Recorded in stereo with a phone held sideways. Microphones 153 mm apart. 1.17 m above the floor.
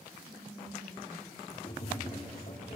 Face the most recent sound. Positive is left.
turn(degrees=45)  # may be behind; listen again after turning